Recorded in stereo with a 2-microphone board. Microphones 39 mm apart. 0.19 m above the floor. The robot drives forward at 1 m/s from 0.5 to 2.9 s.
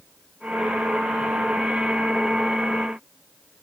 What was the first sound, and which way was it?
Only background noise.